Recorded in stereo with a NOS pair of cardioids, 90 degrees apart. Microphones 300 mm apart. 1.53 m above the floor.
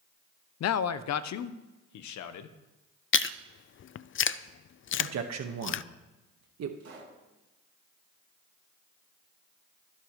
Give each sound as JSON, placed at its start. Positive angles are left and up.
{"t": 0.6, "sound": "a man speaking", "azimuth_deg": 55, "distance_m": 0.6}
{"t": 3.1, "sound": "chewing", "azimuth_deg": 45, "distance_m": 0.5}
{"t": 5.0, "sound": "a man speaking", "azimuth_deg": -60, "distance_m": 1.6}
{"t": 6.8, "sound": "a pop", "azimuth_deg": -55, "distance_m": 7.5}